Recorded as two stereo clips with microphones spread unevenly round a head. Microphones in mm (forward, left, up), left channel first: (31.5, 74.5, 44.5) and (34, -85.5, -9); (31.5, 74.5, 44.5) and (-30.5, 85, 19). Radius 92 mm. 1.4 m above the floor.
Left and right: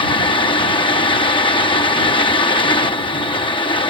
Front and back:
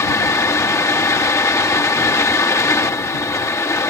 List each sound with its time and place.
0.0 s a fan: 30° left